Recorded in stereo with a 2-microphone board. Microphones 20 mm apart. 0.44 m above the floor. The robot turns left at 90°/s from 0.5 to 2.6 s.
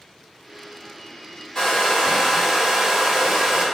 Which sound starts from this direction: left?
A hair dryer, at 1.6 s.